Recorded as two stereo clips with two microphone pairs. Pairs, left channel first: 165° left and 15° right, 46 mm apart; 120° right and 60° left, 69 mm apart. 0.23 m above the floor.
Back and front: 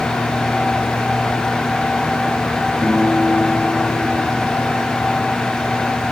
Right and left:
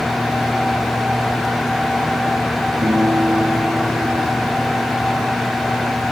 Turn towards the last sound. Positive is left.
turn(degrees=80)